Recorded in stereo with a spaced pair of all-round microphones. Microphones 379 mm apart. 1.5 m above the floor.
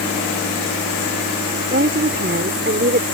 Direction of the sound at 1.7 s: 30° right (ahead or behind).